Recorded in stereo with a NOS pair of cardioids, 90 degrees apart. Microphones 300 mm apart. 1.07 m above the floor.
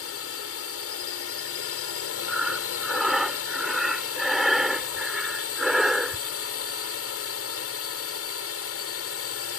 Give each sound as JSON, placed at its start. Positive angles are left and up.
{"t": 0.0, "sound": "a drone", "azimuth_deg": 55}
{"t": 2.3, "sound": "breathing", "azimuth_deg": 0}